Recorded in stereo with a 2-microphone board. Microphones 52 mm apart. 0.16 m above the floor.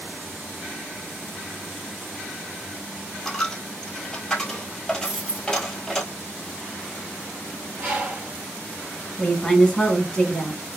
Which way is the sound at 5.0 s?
20° right (ahead or behind).